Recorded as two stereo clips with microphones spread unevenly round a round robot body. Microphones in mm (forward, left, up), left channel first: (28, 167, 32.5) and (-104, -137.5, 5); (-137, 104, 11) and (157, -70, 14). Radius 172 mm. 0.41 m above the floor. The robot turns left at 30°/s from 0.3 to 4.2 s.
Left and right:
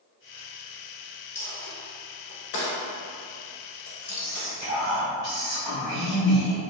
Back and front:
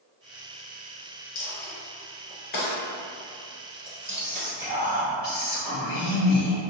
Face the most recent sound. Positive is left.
turn(degrees=40)